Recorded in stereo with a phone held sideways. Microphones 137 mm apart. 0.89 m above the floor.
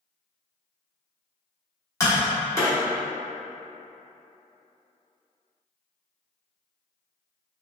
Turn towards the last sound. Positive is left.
turn(degrees=20)  # may be behind; listen again after turning